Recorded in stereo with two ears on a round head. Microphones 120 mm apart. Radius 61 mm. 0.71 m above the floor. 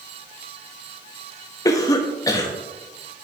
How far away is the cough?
About 0.7 m.